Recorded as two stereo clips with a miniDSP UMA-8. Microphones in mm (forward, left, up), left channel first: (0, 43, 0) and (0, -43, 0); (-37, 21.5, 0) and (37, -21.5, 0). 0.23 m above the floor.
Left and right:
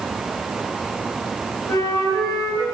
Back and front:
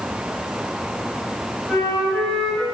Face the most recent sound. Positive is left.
turn(degrees=70)